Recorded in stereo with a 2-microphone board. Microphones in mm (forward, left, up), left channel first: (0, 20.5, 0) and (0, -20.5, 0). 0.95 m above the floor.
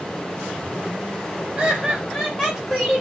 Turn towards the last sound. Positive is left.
turn(degrees=20)  # may be behind; listen again after turning